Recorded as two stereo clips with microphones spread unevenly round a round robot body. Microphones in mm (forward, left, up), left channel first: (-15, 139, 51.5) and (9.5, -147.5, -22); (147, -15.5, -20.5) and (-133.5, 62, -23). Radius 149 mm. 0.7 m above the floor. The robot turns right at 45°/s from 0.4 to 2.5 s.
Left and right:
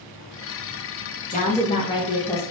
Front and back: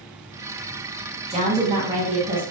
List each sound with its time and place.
1.3 s a woman speaking: 150° left, 1.0 m; by 2.4 s 160° right, 1.0 m